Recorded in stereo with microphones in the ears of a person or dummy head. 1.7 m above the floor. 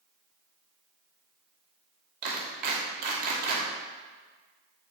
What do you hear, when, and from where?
2.2 s a clap: 45° right (ahead or behind), 2.5 m